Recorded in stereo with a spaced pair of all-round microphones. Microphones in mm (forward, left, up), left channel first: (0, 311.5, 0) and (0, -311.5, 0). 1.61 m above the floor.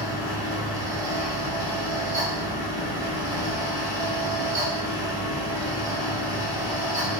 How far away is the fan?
About 1.3 m.